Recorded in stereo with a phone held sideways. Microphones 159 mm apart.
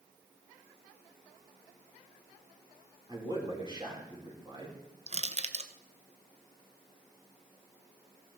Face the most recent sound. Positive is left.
turn(degrees=-45)  # may be behind; listen again after turning